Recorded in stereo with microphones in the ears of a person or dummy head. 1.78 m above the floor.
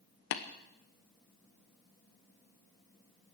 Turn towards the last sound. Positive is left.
turn(degrees=65)  # may be behind; listen again after turning